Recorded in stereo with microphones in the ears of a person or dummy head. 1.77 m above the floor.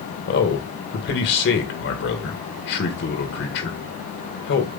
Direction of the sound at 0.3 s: 65° left (ahead or behind).